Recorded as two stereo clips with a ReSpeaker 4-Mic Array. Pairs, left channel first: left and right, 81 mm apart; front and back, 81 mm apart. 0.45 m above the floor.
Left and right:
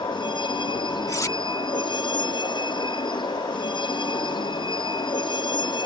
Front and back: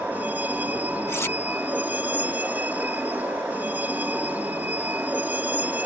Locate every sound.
0.0 s a vehicle: 110° left
1.1 s cutlery clinking: 50° left